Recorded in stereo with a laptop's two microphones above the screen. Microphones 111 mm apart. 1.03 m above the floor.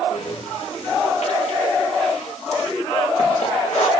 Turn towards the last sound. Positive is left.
turn(degrees=80)